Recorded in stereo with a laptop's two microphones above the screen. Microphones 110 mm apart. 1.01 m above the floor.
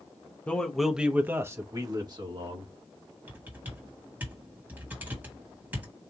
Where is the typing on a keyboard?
15° right (ahead or behind), 1.5 m.